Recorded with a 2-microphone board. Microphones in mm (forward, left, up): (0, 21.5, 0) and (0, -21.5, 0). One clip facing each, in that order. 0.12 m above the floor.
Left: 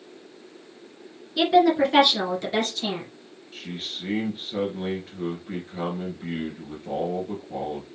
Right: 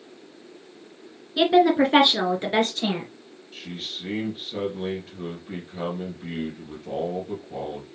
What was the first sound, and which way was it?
A woman speaking, 15° right (ahead or behind).